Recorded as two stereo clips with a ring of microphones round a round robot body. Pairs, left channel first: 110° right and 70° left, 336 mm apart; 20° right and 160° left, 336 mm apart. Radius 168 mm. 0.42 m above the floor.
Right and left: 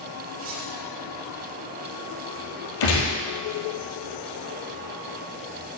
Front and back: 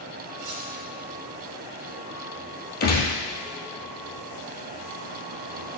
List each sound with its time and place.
0.4 s cutlery clinking: 120° left, 2.5 m
2.8 s a gunshot: 85° right, 2 m